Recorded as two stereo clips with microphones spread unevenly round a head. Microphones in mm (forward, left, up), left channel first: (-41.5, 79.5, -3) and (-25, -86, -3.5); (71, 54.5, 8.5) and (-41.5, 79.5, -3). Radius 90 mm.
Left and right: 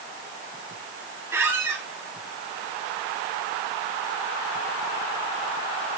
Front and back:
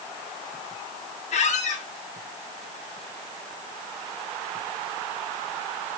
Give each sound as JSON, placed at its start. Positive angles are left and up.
{"t": 1.3, "sound": "a squeak", "azimuth_deg": -5, "distance_m": 1.7}